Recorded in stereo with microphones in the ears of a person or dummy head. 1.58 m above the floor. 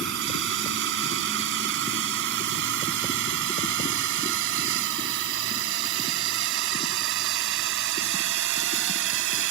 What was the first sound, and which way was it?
A drone, 60° right (ahead or behind).